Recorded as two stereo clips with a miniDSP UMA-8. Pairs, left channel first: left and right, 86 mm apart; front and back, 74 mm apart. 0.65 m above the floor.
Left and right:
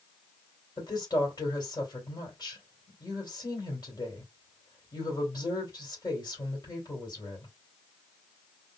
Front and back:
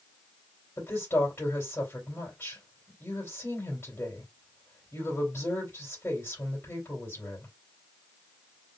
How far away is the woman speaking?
About 3 m.